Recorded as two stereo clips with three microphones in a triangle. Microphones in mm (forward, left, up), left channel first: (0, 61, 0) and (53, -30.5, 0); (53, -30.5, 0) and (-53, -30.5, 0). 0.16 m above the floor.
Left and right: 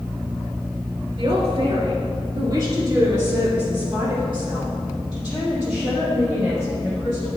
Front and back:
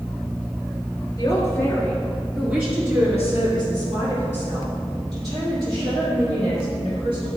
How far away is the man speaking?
About 1.9 m.